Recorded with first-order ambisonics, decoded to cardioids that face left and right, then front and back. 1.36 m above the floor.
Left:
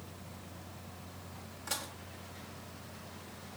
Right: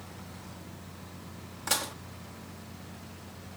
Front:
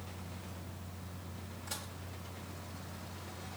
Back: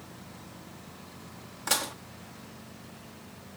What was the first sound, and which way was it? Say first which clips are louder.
Dishes clattering: right 9 dB, back 16 dB; 150° right.